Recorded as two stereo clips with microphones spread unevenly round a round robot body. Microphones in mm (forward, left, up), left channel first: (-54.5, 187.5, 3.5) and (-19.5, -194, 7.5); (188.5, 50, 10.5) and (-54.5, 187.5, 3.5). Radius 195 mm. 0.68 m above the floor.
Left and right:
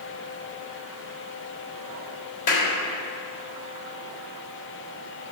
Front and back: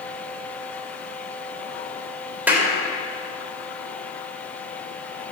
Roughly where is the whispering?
No whispering in this recording.